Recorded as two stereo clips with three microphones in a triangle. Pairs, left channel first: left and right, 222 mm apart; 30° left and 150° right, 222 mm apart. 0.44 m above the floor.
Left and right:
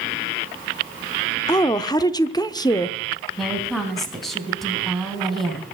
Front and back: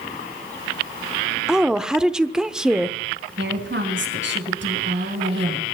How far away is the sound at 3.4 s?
About 3 m.